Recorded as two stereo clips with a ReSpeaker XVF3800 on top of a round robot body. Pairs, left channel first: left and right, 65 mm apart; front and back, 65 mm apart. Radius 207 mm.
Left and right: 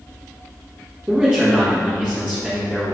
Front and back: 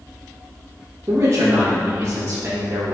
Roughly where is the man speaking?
Behind right.